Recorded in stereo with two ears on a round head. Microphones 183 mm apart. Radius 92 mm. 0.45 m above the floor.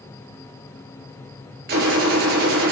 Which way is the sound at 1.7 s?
50° right (ahead or behind).